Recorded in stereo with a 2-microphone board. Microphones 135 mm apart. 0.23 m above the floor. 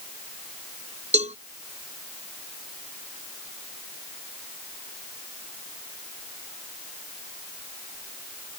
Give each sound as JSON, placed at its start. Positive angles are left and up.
{"t": 1.1, "sound": "a cowbell", "side_deg": -55}